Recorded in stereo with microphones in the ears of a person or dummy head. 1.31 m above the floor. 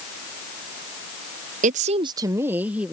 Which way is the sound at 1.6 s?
35° right (ahead or behind).